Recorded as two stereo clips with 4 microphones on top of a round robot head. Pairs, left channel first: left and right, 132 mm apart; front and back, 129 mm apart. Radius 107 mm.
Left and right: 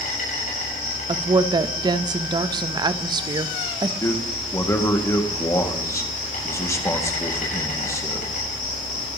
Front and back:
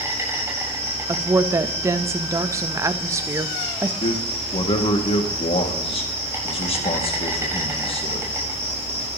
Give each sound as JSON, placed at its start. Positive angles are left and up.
{"t": 0.0, "sound": "an insect", "azimuth_deg": 110, "distance_m": 7.5}
{"t": 1.1, "sound": "a woman speaking", "azimuth_deg": -125, "distance_m": 0.7}
{"t": 4.0, "sound": "a man speaking", "azimuth_deg": 25, "distance_m": 1.9}